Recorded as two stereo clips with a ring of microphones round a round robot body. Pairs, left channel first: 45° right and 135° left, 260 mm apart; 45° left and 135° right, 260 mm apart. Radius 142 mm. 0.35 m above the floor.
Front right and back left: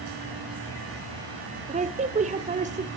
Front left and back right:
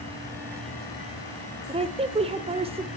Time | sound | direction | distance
1.7 | a woman speaking | 175° left | 0.9 m